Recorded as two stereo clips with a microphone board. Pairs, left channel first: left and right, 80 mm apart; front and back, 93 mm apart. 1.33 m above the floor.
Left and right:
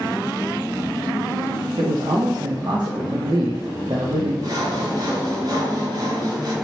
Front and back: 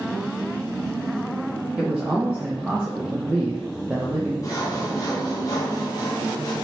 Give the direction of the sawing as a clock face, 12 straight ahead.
2 o'clock.